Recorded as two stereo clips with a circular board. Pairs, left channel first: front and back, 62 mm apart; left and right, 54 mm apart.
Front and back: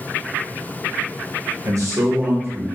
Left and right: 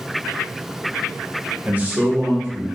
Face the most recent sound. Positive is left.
turn(degrees=-130)